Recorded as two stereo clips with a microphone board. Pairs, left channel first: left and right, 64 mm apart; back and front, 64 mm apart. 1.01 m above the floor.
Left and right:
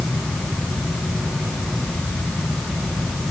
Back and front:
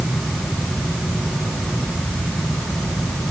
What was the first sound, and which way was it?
Only background noise.